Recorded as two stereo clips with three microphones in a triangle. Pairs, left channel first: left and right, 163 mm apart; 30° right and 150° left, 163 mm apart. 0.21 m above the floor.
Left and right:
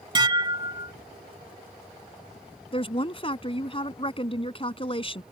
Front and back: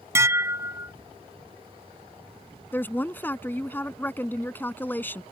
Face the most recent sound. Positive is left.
turn(degrees=45)